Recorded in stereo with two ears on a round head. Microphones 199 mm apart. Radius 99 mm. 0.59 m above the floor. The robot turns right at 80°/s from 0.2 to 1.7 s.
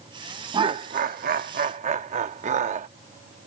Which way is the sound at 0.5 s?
150° right.